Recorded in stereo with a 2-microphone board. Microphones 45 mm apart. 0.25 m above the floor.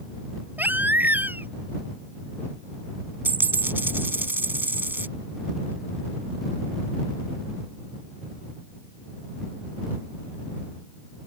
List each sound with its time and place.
0.6 s a baby crying: 45° right (ahead or behind)
3.2 s a dropped coin: 50° right (ahead or behind)